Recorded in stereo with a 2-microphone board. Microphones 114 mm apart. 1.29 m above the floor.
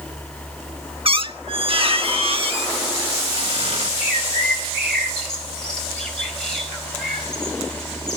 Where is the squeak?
55° right (ahead or behind), 0.9 m.